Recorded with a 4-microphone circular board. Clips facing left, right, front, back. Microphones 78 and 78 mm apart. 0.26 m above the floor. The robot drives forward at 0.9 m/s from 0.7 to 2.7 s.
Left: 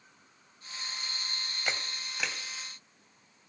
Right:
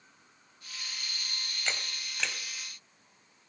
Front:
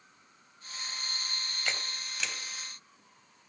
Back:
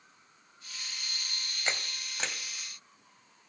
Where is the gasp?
No gasp in this recording.